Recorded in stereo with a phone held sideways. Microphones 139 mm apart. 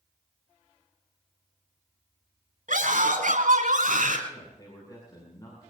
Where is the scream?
80° right, 7.5 m.